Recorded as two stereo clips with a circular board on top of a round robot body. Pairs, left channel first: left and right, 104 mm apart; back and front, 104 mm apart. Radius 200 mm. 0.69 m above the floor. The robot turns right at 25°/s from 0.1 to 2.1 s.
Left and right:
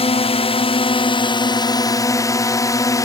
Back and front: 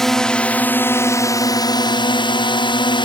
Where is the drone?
95° left; by 3.0 s 145° left.